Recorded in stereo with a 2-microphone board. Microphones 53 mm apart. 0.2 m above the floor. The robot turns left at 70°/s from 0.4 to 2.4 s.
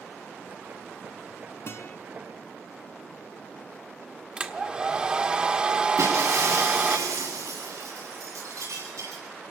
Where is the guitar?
55° left (ahead or behind), 1.9 m; by 2.0 s 50° left (ahead or behind), 1.9 m.